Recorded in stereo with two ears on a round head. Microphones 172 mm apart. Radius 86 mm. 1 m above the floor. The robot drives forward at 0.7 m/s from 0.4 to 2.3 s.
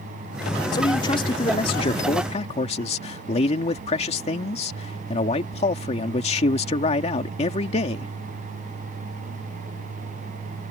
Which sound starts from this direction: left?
A man speaking, at 0.7 s.